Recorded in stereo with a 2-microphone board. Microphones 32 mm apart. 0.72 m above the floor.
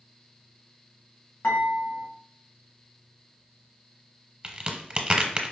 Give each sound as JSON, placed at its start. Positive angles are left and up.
{"t": 1.4, "sound": "dishes clattering", "side_deg": 70, "distance_m": 2.0}
{"t": 4.4, "sound": "a crack", "side_deg": -30, "distance_m": 0.9}